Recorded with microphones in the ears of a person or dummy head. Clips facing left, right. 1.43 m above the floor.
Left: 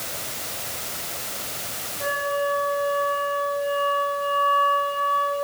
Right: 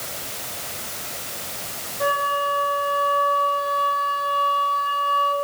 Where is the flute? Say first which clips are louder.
Right 1 dB; 75° right (ahead or behind), 4 m.